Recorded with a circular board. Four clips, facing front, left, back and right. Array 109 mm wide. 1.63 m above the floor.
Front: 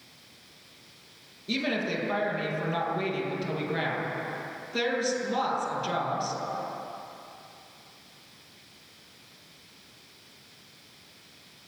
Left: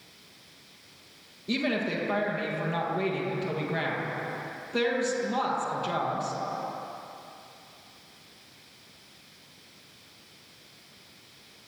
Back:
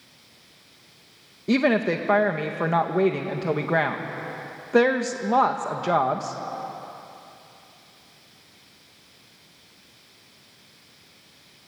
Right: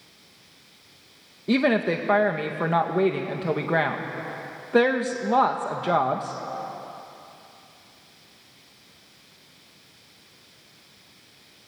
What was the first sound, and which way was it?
A woman speaking, 140° right.